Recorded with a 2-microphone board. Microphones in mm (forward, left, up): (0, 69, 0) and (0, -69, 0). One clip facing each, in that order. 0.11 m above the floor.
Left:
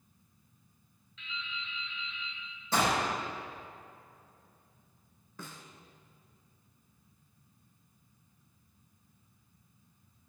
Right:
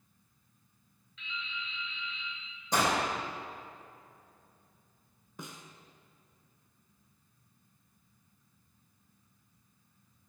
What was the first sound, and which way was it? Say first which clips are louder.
Dripping: right 1 dB; centre (ahead or behind).